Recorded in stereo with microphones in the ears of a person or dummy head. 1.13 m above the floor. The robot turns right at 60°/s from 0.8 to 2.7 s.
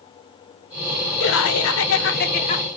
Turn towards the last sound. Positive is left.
turn(degrees=150)